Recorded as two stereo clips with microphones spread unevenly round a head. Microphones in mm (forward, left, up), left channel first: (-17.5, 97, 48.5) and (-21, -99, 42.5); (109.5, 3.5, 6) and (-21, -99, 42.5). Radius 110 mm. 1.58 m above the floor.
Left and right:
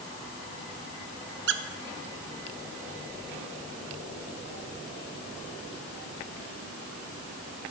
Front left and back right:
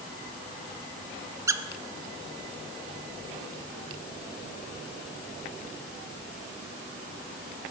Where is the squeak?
90° right, 0.6 m.